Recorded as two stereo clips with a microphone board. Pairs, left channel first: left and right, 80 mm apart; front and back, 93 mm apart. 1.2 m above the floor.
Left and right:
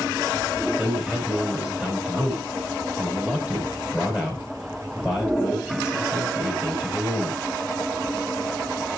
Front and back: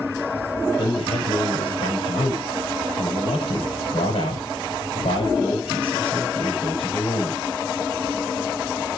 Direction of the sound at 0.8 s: 10° right.